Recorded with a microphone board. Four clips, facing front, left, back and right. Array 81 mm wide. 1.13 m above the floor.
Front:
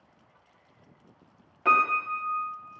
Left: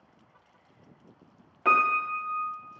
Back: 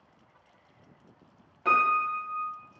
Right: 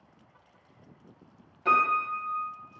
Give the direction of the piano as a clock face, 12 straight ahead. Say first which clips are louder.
Left 1 dB, front 1 dB; 10 o'clock.